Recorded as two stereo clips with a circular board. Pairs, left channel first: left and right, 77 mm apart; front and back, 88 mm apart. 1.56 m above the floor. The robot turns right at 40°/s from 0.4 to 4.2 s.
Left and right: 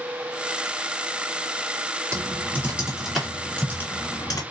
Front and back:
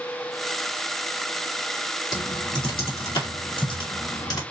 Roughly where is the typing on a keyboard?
Ahead right.